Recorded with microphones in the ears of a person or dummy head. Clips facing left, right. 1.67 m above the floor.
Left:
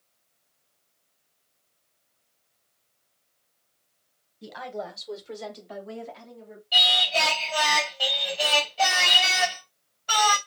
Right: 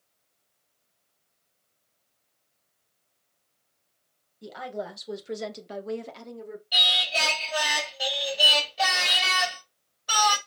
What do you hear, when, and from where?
4.4 s a woman speaking: 5° left (ahead or behind), 1.3 m; by 6.6 s 65° right (ahead or behind), 1.1 m
6.7 s singing: 20° right (ahead or behind), 2.5 m